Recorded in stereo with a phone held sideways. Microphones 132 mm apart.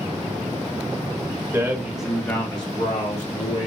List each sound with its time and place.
1.5 s a man speaking: 25° right (ahead or behind), 1.3 m; by 3.7 s 70° left (ahead or behind), 1.7 m